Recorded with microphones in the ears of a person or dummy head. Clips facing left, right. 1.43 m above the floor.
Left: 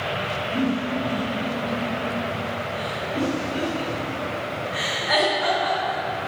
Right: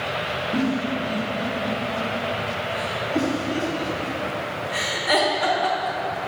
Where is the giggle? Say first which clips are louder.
Even; 40° right (ahead or behind), 1.1 m.